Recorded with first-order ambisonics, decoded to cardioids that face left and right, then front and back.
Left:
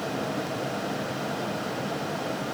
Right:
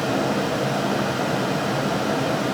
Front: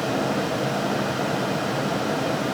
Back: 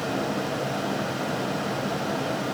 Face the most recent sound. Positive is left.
No sound to turn to.